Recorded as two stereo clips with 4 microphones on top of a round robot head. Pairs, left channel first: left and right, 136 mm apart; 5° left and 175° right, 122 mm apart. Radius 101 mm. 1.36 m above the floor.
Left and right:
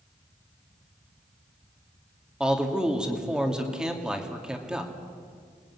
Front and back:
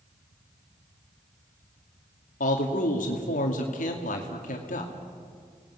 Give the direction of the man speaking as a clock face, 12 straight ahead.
12 o'clock.